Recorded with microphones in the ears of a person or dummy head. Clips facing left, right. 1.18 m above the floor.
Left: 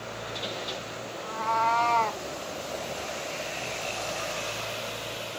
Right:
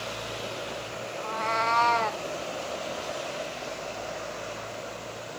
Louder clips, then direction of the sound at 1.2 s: Left 2 dB; 50° right (ahead or behind).